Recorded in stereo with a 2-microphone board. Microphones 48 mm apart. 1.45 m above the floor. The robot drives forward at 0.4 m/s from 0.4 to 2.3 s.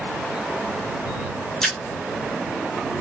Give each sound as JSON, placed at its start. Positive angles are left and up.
{"t": 1.6, "sound": "a splash", "side_deg": 5, "distance_m": 1.2}